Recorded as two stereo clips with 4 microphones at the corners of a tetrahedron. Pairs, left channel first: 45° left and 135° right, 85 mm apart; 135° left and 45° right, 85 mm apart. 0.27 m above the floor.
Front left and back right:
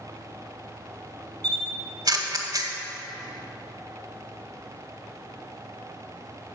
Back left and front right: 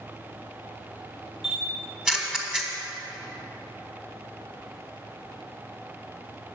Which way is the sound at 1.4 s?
125° right.